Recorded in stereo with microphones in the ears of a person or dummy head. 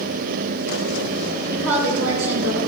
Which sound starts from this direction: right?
A woman speaking, at 1.5 s.